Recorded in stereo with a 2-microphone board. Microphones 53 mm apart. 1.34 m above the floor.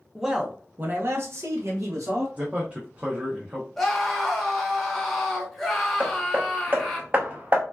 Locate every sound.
0.1 s a man speaking: 5° right (ahead or behind), 0.9 m; by 2.3 s 80° right, 1.7 m
2.4 s a man speaking: 25° right (ahead or behind), 0.9 m
3.8 s a scream: centre (ahead or behind), 1.4 m
6.0 s hammering: 35° right (ahead or behind), 0.8 m